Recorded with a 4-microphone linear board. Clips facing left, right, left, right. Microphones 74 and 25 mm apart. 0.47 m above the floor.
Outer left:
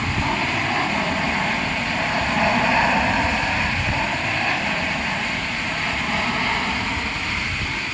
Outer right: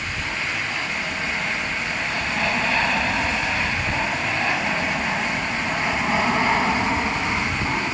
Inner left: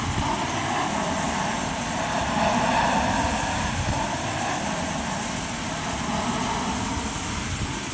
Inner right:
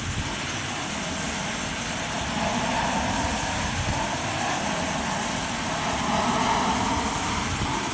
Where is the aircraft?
45° left (ahead or behind); by 8.0 s 25° right (ahead or behind).